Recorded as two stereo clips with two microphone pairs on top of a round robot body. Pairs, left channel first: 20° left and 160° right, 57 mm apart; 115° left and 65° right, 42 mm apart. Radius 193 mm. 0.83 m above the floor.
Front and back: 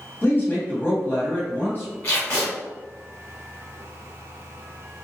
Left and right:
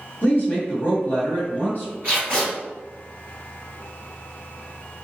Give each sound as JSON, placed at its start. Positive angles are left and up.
{"t": 0.2, "sound": "a woman speaking", "azimuth_deg": 75, "distance_m": 1.5}
{"t": 2.0, "sound": "tape being pulled", "azimuth_deg": -25, "distance_m": 1.6}